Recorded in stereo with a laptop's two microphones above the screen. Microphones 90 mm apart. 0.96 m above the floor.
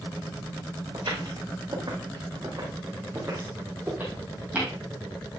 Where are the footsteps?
60° right (ahead or behind), 3.5 m; by 4.7 s 15° right (ahead or behind), 3 m.